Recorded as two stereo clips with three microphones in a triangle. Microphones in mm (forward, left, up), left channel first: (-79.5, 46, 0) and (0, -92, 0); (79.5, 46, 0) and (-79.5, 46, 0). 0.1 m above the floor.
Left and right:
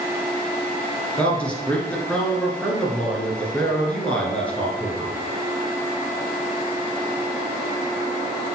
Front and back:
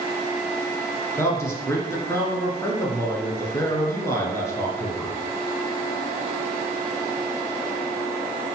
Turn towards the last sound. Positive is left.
turn(degrees=50)